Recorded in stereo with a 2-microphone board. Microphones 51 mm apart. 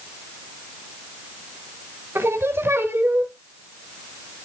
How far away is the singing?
About 1.1 m.